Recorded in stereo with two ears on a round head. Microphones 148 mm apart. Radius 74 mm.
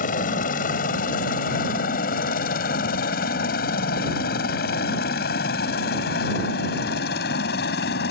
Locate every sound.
0.0 s a helicopter: 50° left (ahead or behind); by 8.1 s 65° left (ahead or behind)